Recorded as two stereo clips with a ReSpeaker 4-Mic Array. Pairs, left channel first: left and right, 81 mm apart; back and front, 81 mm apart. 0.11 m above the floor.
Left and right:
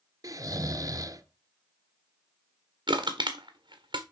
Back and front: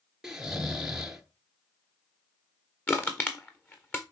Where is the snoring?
80° right, 1.2 m.